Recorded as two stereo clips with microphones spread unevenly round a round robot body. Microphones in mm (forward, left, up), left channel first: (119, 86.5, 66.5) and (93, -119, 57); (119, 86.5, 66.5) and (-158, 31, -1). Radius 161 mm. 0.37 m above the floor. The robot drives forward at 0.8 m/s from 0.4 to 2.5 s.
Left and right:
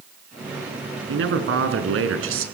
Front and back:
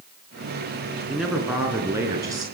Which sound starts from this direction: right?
A man speaking, at 1.1 s.